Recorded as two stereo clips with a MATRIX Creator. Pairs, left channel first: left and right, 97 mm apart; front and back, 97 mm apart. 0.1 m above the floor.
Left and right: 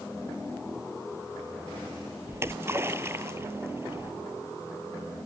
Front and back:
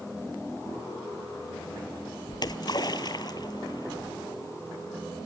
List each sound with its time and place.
2.3 s a splash: 30° right, 0.7 m